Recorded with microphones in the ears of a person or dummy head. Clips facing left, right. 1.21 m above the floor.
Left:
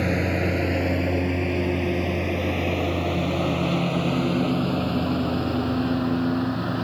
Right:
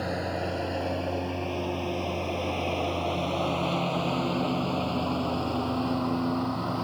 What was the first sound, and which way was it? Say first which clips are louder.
A lawn mower: left 7 dB; 40° left (ahead or behind).